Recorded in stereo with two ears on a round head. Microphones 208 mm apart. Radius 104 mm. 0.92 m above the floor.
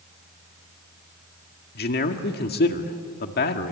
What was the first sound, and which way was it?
A man speaking, 45° left (ahead or behind).